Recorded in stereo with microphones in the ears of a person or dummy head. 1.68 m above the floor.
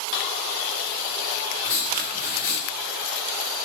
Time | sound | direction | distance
1.6 | writing | 20° right (ahead or behind) | 0.8 m